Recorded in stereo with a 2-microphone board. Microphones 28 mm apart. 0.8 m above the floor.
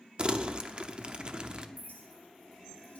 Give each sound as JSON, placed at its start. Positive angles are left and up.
{"t": 0.2, "sound": "crumpling", "side_deg": -35, "distance_m": 0.6}
{"t": 1.8, "sound": "a clink", "side_deg": 70, "distance_m": 2.5}